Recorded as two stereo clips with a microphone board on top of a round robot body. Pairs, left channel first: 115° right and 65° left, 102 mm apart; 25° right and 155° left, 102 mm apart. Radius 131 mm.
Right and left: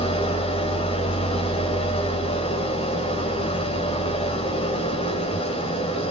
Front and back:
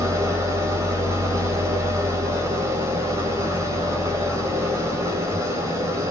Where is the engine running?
140° right, 4 m.